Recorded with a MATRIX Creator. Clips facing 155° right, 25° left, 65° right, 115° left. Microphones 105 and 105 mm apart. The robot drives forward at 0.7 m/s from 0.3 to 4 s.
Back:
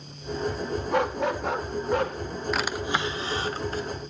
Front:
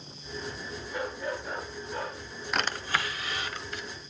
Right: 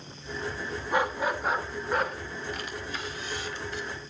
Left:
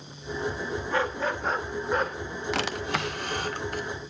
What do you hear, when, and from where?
0.9 s a dog barking: 140° right, 1.2 m; by 2.2 s 155° right, 2.0 m
2.5 s a drawer: 115° left, 0.6 m; by 3.9 s 155° left, 1.3 m